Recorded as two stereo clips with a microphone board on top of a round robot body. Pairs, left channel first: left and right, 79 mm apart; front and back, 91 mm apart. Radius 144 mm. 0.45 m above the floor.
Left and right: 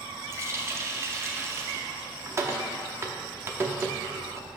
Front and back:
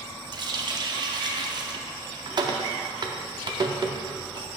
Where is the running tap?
145° right, 0.7 m.